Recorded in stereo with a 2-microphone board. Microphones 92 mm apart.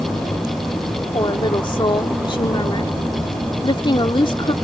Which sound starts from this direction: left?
A woman speaking, at 1.1 s.